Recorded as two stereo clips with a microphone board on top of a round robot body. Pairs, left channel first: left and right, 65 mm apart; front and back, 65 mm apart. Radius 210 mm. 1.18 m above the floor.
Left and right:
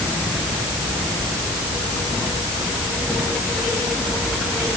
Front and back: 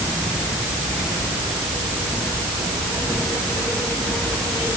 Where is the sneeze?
No sneeze in this recording.